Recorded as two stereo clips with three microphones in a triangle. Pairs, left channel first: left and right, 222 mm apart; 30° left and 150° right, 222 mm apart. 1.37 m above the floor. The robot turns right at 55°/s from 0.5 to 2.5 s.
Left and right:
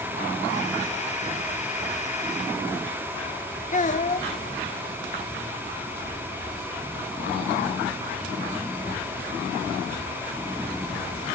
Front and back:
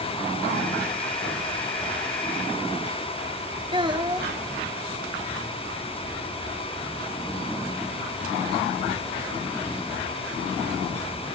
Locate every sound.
3.7 s a child speaking: 145° left, 1.2 m